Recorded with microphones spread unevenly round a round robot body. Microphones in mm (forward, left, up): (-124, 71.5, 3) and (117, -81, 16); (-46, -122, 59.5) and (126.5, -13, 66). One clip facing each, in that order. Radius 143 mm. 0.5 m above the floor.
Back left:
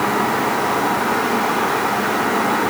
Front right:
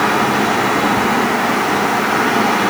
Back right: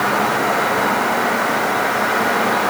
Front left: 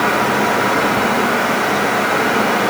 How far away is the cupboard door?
I don't hear a cupboard door.